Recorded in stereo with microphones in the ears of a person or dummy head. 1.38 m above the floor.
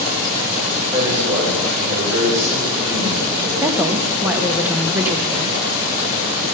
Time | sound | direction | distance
0.9 | a man speaking | 15° right (ahead or behind) | 5.5 m
3.6 | a woman speaking | 15° right (ahead or behind) | 1.2 m